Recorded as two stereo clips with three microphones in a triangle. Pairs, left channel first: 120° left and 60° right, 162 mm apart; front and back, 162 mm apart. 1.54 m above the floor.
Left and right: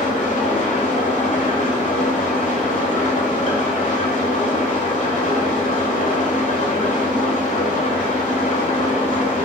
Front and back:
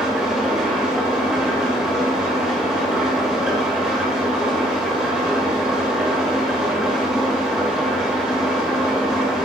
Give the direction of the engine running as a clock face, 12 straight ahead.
9 o'clock.